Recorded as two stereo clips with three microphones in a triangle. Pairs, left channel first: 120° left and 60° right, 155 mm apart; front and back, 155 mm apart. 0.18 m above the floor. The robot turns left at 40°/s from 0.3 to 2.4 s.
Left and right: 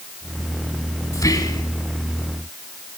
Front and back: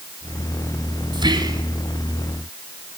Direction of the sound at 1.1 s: 170° left.